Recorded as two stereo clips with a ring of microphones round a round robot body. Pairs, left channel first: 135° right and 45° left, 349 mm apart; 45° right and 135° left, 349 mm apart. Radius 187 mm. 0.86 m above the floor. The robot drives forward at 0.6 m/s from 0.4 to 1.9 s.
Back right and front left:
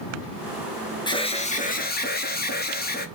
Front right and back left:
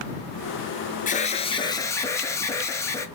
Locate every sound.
1.1 s an alarm: 75° right, 1.6 m; by 3.1 s 115° right, 1.6 m